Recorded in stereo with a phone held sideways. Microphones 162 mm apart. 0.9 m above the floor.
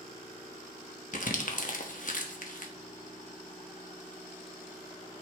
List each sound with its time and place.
1.1 s crumpling: 55° left (ahead or behind), 1.2 m